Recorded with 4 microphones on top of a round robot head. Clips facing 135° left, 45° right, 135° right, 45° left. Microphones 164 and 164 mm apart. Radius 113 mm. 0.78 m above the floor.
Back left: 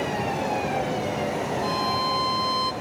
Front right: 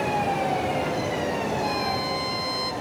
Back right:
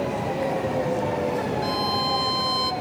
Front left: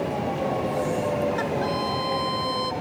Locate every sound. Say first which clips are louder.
1.6 s a violin: even, even; 115° right, 1.0 m